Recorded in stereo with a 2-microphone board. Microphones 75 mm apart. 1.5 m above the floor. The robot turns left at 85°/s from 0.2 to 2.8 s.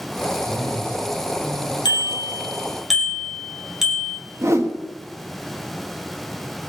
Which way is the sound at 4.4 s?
40° right (ahead or behind).